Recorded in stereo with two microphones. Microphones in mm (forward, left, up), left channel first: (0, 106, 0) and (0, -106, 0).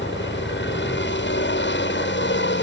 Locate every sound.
0.0 s a helicopter: 60° left (ahead or behind)